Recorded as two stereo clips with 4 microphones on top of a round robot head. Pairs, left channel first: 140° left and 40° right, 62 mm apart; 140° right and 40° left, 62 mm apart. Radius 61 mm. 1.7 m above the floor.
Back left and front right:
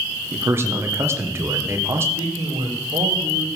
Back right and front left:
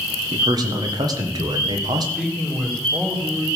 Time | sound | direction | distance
0.3 | a man speaking | 15° left | 1.8 m
2.1 | a man speaking | 30° right | 3 m